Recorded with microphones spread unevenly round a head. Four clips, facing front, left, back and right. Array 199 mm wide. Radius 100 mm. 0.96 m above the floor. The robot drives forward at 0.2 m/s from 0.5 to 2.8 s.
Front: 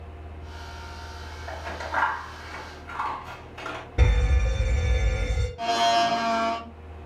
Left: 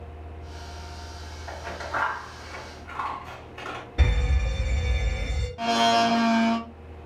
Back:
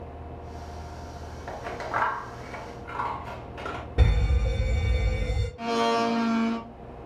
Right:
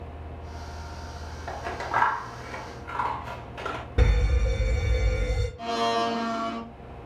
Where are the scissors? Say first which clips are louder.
Right 3 dB, back 1 dB; 115° right, 0.9 m; by 3.8 s 130° right, 1.0 m.